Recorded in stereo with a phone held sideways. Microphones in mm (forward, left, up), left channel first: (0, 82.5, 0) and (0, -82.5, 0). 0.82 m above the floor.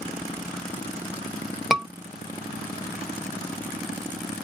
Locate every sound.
1.7 s a scream: 5° right (ahead or behind), 0.9 m